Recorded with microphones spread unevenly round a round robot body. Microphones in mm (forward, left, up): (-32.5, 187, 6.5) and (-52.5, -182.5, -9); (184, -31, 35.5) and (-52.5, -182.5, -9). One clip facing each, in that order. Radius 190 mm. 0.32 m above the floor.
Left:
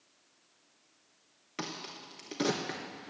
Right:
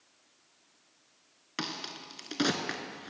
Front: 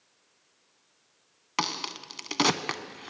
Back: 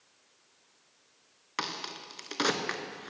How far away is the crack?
About 0.5 m.